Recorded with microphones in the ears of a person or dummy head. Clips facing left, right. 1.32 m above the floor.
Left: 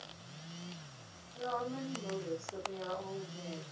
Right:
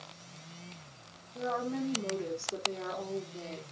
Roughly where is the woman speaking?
Right.